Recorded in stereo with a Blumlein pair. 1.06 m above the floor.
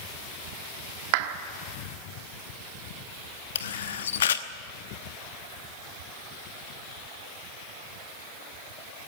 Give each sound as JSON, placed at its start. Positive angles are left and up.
{"t": 1.1, "sound": "a clap", "azimuth_deg": -45, "distance_m": 1.4}
{"t": 3.5, "sound": "a camera shutter", "azimuth_deg": 60, "distance_m": 1.0}